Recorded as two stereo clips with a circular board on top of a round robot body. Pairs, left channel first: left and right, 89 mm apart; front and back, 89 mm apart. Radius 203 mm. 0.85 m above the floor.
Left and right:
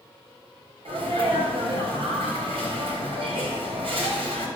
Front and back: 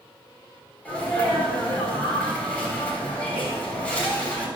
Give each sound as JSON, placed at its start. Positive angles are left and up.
{"t": 0.8, "sound": "a sneeze", "azimuth_deg": -75, "distance_m": 4.0}